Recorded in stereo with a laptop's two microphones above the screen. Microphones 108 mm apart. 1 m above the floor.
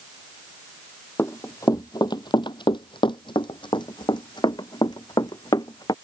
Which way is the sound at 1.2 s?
25° left (ahead or behind).